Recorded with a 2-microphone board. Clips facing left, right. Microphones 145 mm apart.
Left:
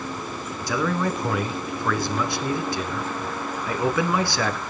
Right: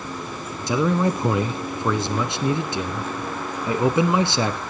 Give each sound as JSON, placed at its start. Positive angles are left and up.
{"t": 0.7, "sound": "a man speaking", "side_deg": -25, "distance_m": 1.1}